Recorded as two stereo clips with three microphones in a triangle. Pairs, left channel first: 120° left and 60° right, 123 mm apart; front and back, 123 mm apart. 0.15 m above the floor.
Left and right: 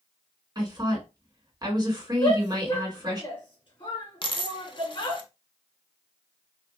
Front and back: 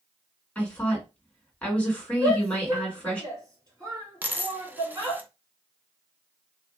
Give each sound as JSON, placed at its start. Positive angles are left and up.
{"t": 0.6, "sound": "a woman speaking", "azimuth_deg": -70, "distance_m": 1.8}
{"t": 2.2, "sound": "a shout", "azimuth_deg": 130, "distance_m": 2.0}
{"t": 4.2, "sound": "a dropped coin", "azimuth_deg": 115, "distance_m": 0.6}